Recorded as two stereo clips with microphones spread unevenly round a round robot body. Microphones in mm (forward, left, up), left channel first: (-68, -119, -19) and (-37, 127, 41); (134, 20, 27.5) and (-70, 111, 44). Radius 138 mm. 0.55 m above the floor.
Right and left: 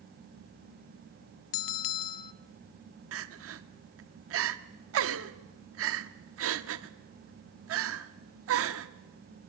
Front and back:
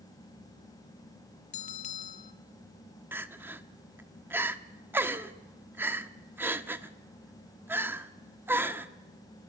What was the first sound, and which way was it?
A bell, 90° right.